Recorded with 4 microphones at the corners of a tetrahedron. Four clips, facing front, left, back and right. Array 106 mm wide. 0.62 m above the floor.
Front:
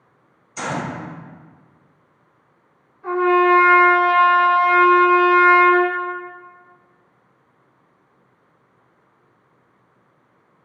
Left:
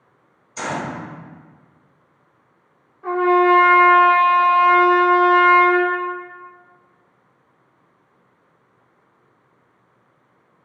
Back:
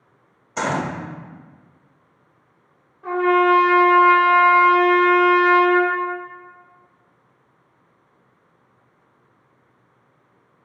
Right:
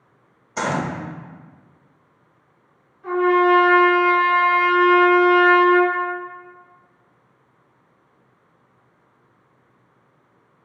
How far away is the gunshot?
About 0.9 m.